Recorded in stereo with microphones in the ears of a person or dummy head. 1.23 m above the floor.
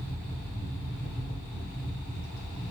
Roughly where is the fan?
Left.